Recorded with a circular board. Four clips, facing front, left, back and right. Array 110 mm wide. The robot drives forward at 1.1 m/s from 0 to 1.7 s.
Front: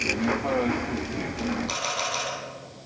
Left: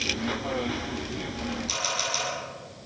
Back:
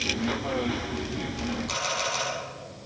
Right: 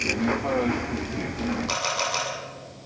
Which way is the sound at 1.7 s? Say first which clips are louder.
Right 4 dB, even; 80° right.